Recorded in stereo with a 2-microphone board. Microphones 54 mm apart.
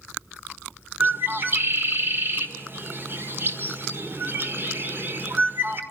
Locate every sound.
1.0 s a bird: 45° right (ahead or behind), 1.9 m